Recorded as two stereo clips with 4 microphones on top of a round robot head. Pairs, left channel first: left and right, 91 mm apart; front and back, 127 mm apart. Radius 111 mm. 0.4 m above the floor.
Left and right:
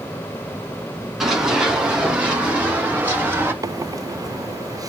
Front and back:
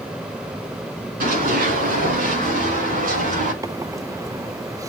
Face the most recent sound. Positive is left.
turn(degrees=-125)